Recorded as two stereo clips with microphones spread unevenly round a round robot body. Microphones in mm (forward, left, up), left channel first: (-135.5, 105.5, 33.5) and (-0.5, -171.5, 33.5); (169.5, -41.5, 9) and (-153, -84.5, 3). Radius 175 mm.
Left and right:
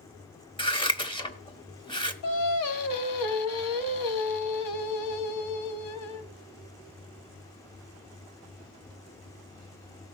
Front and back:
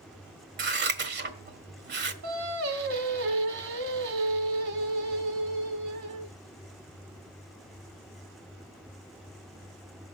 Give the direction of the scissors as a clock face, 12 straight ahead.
6 o'clock.